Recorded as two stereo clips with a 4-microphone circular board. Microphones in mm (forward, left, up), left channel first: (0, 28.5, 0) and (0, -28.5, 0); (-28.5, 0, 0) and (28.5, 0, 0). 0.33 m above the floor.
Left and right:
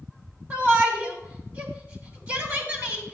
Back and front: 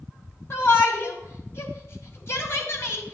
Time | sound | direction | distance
0.5 | a shout | 145° right | 2 m